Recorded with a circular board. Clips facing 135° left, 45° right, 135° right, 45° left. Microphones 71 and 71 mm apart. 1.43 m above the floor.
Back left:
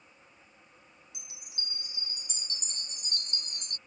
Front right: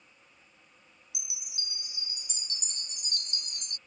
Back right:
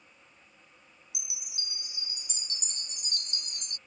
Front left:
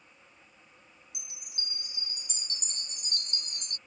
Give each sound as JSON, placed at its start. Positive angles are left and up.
{"t": 1.1, "sound": "a chime", "azimuth_deg": 85}